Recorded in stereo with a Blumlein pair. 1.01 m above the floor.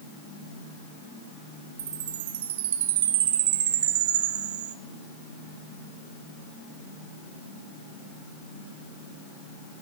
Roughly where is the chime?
Ahead right.